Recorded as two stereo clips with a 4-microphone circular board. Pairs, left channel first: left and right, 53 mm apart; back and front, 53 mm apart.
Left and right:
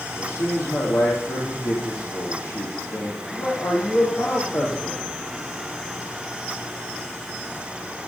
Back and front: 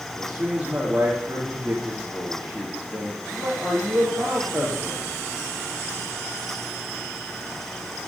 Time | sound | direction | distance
0.2 | a man speaking | 70° left | 5 m